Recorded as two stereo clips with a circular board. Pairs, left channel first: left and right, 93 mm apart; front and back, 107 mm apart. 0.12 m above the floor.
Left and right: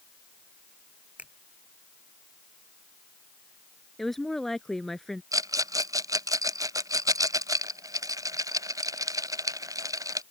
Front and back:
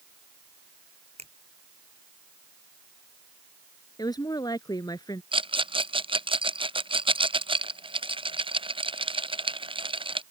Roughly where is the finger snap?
Behind.